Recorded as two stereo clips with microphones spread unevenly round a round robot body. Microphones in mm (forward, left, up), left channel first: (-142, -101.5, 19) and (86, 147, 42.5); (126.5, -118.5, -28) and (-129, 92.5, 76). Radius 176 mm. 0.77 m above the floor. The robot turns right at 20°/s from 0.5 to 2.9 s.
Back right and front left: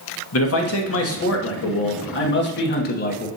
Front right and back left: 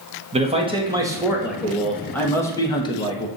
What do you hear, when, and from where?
0.3 s a man speaking: 135° right, 1.3 m; by 3.3 s 85° right, 1.3 m